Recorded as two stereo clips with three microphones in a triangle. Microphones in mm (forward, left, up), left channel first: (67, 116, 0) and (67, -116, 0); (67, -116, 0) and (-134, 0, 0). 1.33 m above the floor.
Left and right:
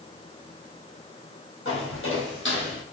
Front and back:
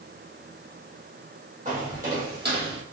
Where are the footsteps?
100° left, 2.5 m; by 2.8 s 120° left, 2.5 m.